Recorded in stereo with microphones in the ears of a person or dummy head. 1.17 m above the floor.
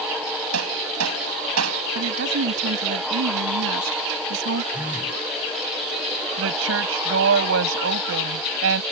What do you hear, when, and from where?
0.5 s hammering: 85° right
1.9 s a woman speaking: 70° right (ahead or behind)
4.7 s a phone buzzing: 10° right (ahead or behind)
6.4 s a woman speaking: 70° right (ahead or behind)